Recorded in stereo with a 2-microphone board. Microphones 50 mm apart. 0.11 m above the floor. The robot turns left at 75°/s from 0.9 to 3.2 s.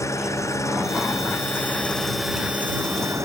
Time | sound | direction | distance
0.0 | an engine running | 95° left | ?